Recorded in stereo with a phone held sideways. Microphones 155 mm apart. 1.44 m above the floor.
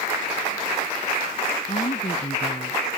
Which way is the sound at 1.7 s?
50° left (ahead or behind).